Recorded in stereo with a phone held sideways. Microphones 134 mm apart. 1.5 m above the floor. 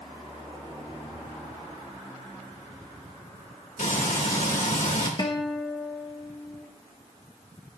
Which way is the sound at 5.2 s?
35° left (ahead or behind).